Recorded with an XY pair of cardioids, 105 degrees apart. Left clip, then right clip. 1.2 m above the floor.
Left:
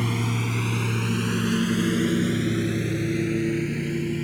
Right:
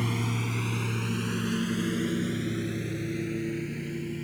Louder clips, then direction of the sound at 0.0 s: Left 4 dB; 25° left.